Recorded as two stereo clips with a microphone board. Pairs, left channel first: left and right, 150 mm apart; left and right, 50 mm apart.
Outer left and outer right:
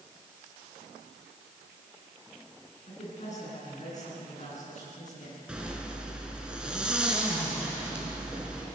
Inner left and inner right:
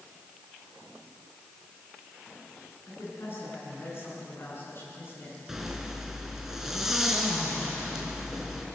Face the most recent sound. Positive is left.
turn(degrees=-5)  # may be behind; listen again after turning